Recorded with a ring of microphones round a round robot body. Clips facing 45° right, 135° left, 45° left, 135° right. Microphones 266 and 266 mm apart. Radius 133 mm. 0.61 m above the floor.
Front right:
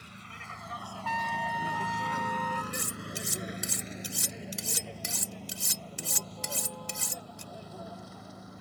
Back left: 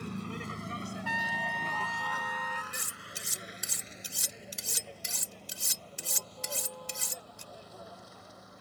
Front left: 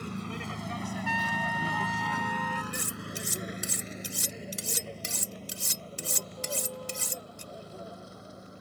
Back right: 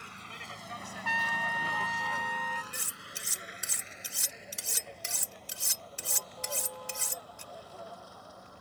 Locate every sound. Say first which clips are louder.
0.0 s a vehicle: back left 13 dB, front left 15 dB; 95° left; by 8.6 s 25° right
1.1 s a trumpet: front right 2 dB, front left 6 dB; 150° right
2.7 s cutlery clinking: front right 10 dB, front left 12 dB; 5° right